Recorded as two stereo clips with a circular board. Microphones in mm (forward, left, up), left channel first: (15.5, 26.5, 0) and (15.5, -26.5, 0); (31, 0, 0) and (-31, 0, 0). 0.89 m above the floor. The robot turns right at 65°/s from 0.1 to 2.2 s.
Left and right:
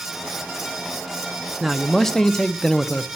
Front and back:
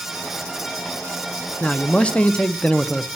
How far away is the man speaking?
About 0.5 m.